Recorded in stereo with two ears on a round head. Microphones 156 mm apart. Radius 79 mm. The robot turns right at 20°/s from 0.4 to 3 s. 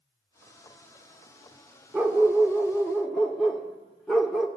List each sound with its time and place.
1.9 s a dog barking: 5° right (ahead or behind), 0.9 m; by 4.5 s 5° left (ahead or behind), 0.9 m